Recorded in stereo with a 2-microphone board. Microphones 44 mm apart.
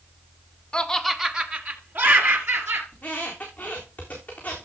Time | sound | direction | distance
0.7 | laughter | 20° left (ahead or behind) | 1.2 m
2.9 | a squeak | 35° left (ahead or behind) | 4 m